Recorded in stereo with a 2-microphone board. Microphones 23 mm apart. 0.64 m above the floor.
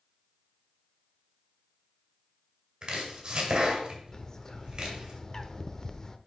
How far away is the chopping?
About 2.5 m.